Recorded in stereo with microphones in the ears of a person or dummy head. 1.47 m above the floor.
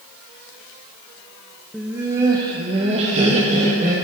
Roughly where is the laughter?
Centre.